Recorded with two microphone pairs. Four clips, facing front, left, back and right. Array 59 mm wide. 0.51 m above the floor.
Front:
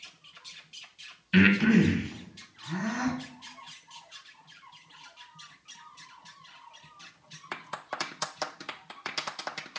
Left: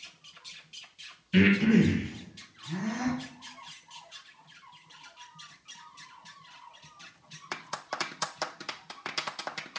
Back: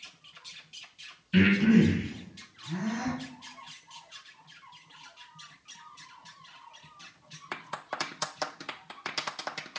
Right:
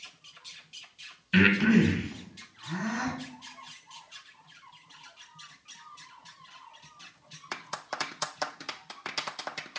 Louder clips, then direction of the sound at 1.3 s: Even, front 1 dB; 50° right.